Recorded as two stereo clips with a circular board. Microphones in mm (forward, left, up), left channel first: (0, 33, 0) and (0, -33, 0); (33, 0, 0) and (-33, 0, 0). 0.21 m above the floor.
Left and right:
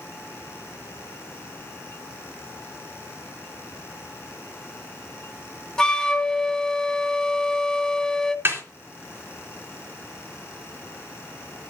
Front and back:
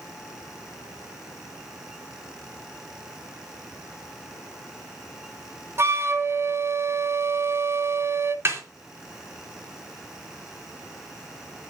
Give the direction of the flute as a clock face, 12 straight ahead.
7 o'clock.